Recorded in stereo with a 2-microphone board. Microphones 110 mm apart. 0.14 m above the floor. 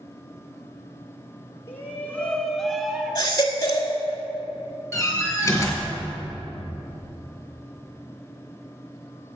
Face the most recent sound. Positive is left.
turn(degrees=25)  # may be behind; listen again after turning